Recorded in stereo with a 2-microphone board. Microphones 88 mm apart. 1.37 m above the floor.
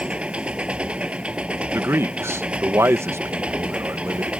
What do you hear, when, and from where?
0.0 s an engine running: 15° right (ahead or behind)
1.7 s a man speaking: 30° right (ahead or behind)